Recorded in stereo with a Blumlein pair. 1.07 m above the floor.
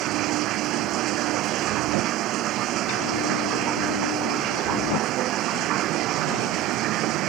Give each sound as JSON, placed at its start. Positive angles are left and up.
{"t": 0.0, "sound": "running water", "azimuth_deg": -35}